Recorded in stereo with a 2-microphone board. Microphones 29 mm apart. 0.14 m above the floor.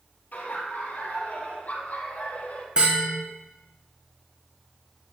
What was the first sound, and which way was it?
Laughter, 60° left (ahead or behind).